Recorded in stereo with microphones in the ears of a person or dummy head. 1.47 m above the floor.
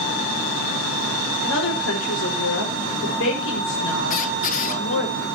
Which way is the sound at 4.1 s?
35° left (ahead or behind).